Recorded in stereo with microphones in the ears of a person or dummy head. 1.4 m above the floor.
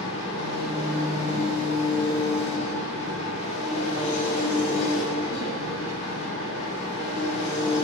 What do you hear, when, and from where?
0.0 s an engine running: 25° left (ahead or behind), 2.5 m